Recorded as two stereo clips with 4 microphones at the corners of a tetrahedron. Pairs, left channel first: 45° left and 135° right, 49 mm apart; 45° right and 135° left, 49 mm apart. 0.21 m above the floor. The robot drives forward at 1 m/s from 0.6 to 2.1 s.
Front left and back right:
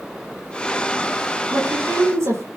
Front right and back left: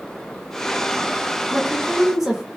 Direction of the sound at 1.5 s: 140° right.